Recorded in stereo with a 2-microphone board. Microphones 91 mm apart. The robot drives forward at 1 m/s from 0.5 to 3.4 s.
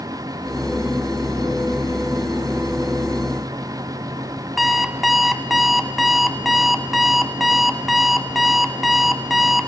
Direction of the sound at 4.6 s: Centre (ahead or behind).